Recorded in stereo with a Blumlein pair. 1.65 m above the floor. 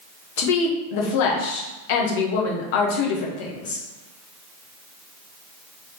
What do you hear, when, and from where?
0.4 s a woman speaking: 50° left, 1.1 m